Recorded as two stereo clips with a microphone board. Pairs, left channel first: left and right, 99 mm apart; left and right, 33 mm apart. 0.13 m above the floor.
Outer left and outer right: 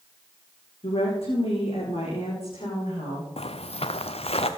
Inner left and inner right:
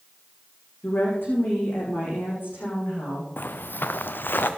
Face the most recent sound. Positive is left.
turn(degrees=85)